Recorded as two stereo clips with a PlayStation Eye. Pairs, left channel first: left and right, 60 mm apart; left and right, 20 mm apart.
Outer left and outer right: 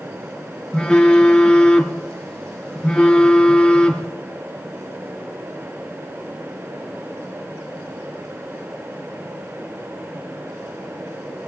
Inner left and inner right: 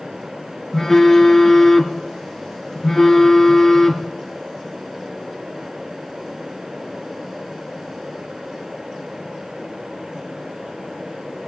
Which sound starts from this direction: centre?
A phone buzzing, at 0.7 s.